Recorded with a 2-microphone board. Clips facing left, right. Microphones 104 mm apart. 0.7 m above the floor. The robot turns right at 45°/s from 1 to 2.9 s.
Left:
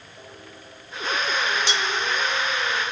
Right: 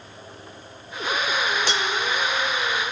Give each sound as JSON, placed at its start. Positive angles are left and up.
{"t": 1.7, "sound": "cutlery clinking", "side_deg": -45, "distance_m": 1.3}